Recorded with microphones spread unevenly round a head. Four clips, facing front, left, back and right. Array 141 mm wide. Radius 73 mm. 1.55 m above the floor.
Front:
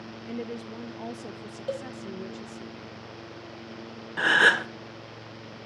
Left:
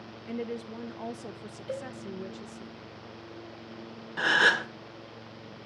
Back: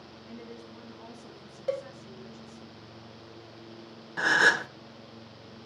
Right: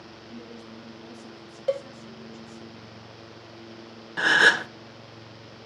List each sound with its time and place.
0.3 s a woman speaking: 35° left, 0.7 m
1.7 s a cowbell: 95° right, 1.0 m
4.2 s a gasp: 30° right, 0.6 m